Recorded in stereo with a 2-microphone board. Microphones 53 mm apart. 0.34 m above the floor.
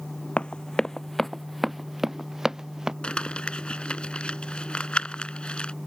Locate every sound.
0.4 s running footsteps: 20° left (ahead or behind); by 2.9 s 10° right (ahead or behind)
3.0 s crumpling: 20° left (ahead or behind)